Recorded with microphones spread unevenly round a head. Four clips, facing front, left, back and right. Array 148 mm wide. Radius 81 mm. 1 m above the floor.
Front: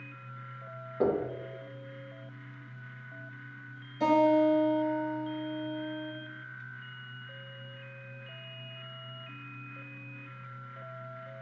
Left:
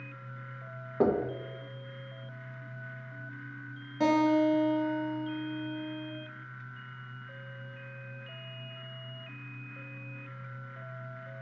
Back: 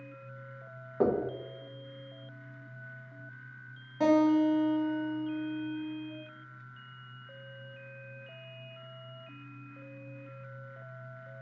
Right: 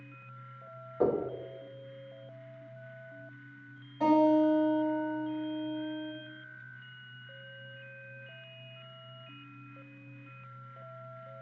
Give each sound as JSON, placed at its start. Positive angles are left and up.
{"t": 1.0, "sound": "knocking", "azimuth_deg": 90, "distance_m": 0.5}
{"t": 4.0, "sound": "a guitar", "azimuth_deg": 110, "distance_m": 1.3}